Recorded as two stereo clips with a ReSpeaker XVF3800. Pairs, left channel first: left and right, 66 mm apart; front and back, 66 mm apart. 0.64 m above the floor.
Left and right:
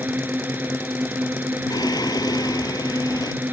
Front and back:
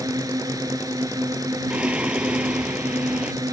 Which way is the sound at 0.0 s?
155° right.